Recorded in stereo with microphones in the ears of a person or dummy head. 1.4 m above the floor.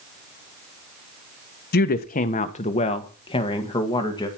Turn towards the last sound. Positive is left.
turn(degrees=20)  # may be behind; listen again after turning